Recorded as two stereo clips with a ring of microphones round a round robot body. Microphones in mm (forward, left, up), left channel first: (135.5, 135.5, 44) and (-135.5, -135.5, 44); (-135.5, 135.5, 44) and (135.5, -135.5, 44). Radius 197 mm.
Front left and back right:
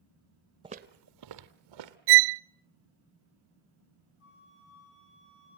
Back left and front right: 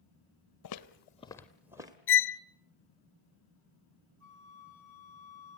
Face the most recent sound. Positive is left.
turn(degrees=65)